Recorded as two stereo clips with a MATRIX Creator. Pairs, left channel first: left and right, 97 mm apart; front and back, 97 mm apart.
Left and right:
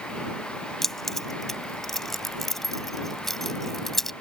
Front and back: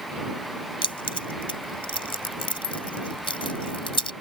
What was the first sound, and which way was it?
Keys jangling, 5° left.